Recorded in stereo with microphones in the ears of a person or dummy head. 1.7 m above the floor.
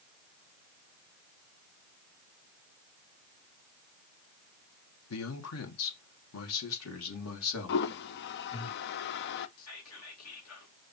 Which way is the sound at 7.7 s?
65° left (ahead or behind).